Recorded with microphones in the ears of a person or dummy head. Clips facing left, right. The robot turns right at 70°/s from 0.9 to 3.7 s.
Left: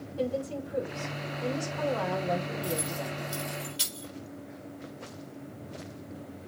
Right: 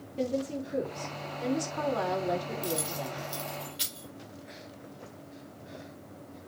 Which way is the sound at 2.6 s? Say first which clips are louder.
Left 1 dB; 35° right (ahead or behind).